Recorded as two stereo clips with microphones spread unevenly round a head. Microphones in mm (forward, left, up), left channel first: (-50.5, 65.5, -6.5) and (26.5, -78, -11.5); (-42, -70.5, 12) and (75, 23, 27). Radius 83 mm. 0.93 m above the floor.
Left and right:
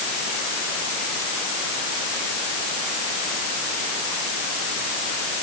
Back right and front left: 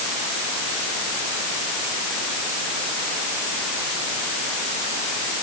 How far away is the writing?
No writing in this recording.